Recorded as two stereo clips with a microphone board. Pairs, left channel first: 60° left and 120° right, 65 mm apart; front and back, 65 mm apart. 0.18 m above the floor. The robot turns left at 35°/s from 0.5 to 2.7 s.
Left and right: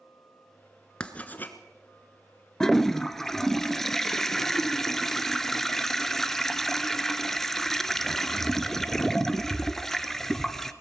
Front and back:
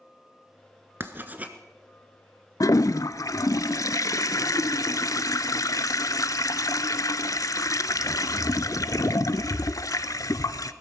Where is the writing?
135° left, 1.2 m; by 1.6 s 115° left, 1.2 m.